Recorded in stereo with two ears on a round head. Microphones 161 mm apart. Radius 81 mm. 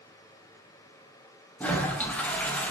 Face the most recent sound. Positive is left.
turn(degrees=10)  # may be behind; listen again after turning